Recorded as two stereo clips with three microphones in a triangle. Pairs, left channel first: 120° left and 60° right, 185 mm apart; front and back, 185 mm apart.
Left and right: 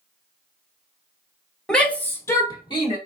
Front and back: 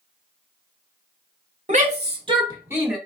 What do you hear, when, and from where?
1.7 s a shout: 155° right, 1.3 m; by 3.0 s 100° left, 1.1 m